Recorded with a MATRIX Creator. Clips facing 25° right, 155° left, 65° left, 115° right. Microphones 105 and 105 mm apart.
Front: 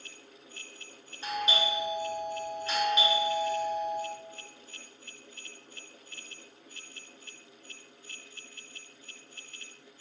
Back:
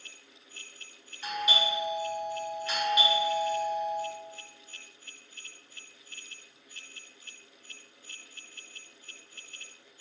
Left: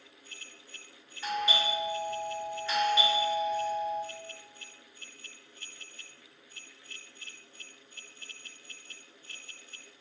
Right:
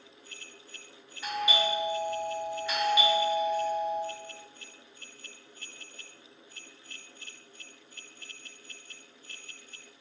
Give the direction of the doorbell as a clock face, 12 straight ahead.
2 o'clock.